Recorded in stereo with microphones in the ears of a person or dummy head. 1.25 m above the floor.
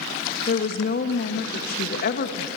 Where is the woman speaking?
50° left (ahead or behind), 2.0 m.